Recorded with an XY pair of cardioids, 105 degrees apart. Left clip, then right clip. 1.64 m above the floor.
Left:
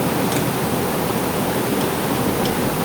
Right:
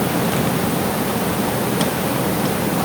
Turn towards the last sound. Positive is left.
No sound to turn to.